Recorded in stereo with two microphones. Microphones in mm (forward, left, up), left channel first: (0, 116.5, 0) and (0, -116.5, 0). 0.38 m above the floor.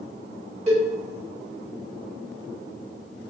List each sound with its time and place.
0.7 s a cowbell: 25° right (ahead or behind), 1.8 m